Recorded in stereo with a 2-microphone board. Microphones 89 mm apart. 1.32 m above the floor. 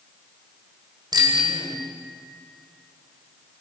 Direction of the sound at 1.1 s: 50° right (ahead or behind).